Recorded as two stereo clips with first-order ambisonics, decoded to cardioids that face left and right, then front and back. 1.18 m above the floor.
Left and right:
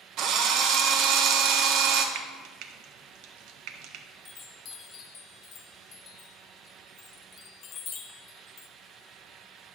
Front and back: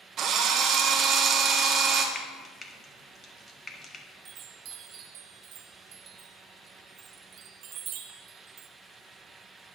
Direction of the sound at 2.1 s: 70° right.